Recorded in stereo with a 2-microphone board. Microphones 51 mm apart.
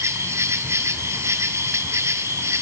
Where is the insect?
70° right (ahead or behind), 2 m.